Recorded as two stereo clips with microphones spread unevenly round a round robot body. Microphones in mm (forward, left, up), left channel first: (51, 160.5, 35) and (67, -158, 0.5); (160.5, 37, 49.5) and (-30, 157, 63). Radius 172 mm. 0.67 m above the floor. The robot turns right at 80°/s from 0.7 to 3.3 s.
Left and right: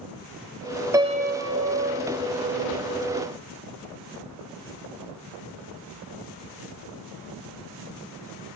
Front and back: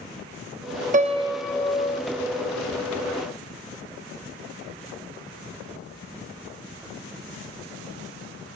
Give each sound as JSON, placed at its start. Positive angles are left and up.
{"t": 0.9, "sound": "a piano", "azimuth_deg": -160, "distance_m": 1.2}